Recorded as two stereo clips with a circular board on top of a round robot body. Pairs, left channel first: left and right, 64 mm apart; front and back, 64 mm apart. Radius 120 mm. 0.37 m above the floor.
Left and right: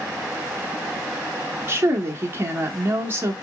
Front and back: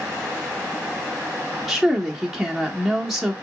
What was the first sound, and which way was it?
A woman speaking, 90° right.